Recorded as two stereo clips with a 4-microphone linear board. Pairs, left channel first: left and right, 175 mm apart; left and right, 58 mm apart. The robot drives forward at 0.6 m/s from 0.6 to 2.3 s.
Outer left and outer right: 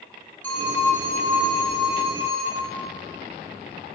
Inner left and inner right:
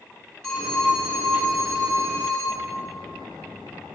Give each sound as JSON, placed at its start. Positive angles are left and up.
{"t": 0.4, "sound": "a phone ringing", "side_deg": 10, "distance_m": 1.9}